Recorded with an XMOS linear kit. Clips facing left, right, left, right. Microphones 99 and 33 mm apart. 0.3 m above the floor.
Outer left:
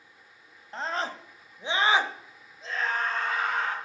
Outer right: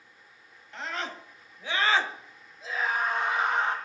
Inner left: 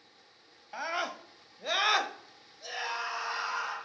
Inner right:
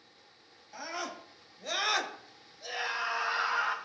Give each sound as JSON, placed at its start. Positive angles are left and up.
{"t": 0.7, "sound": "a scream", "side_deg": 35, "distance_m": 1.7}